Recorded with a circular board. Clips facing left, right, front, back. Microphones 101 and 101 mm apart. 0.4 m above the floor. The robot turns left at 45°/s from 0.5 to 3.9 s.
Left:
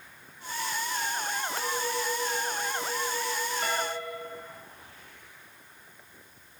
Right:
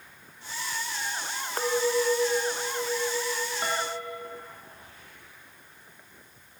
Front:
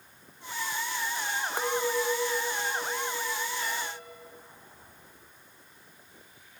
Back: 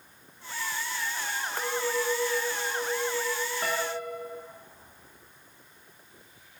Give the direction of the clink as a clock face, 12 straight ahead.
2 o'clock.